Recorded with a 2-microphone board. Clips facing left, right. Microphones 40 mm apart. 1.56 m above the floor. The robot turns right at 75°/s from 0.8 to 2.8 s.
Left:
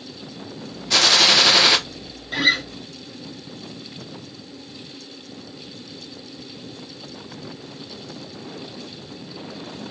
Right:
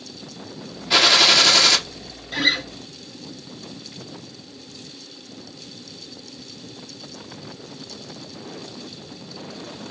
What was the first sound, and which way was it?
A gunshot, 30° right.